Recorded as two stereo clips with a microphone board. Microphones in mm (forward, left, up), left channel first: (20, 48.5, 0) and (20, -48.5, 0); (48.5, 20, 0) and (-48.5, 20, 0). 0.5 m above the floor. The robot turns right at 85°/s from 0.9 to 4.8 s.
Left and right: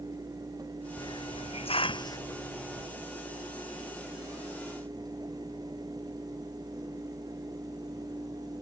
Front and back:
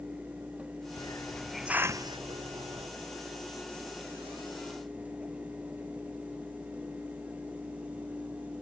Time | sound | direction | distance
1.0 | a hiss | 40° left | ?